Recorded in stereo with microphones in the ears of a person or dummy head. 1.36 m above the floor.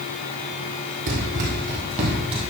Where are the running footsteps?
50° right (ahead or behind), 2.5 m; by 2.4 s 30° right (ahead or behind), 2.5 m.